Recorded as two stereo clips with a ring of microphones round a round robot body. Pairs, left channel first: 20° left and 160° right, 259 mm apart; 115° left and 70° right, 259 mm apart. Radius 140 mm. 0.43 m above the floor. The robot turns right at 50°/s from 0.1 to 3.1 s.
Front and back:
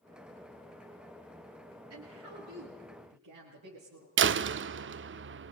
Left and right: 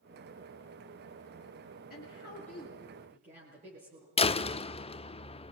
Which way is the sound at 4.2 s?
175° left.